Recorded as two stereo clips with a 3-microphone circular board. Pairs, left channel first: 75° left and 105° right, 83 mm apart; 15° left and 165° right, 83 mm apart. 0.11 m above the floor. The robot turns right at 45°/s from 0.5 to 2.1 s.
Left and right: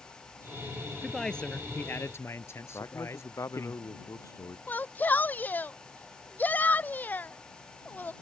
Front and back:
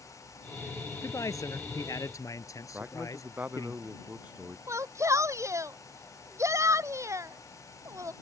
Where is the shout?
145° left.